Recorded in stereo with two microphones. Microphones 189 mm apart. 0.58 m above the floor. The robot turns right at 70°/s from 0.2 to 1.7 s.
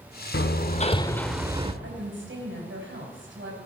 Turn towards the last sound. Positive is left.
turn(degrees=-75)  # may be behind; listen again after turning